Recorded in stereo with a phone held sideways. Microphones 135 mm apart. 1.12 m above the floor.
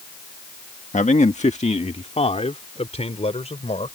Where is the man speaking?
60° left (ahead or behind); by 4.0 s 50° left (ahead or behind).